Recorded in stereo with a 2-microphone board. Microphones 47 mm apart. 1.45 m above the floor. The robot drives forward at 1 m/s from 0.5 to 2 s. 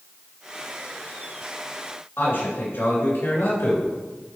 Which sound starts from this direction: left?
A man speaking, at 2.2 s.